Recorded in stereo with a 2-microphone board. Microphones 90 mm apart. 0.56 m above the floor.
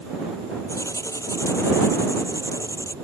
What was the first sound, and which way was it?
Writing, 35° left (ahead or behind).